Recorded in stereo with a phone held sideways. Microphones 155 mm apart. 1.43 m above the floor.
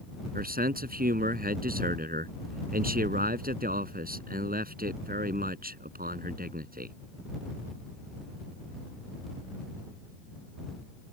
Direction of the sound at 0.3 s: 70° right (ahead or behind).